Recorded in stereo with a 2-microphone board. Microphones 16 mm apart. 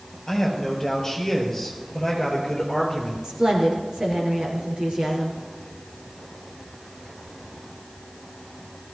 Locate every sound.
0.3 s a man speaking: 15° left (ahead or behind), 6.5 m; by 3.1 s 10° left (ahead or behind), 4.5 m
3.2 s a woman speaking: 70° right (ahead or behind), 5 m